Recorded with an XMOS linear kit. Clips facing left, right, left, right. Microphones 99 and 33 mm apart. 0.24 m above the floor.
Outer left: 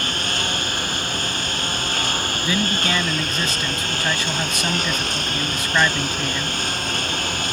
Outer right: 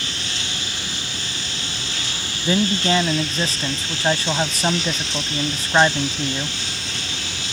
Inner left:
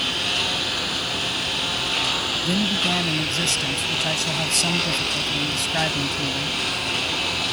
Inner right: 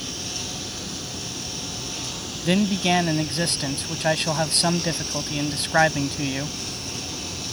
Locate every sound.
0.0 s a lawn mower: 50° left (ahead or behind)
2.5 s a man speaking: 35° right (ahead or behind)